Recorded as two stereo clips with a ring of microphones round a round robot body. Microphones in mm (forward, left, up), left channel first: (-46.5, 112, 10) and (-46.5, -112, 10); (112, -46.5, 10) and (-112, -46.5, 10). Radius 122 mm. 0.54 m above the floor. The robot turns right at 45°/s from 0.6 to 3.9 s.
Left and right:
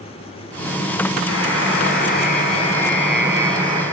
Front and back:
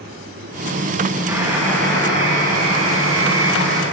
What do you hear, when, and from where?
1.3 s a buzzer: 95° left, 4.5 m; by 3.8 s 150° right, 4.5 m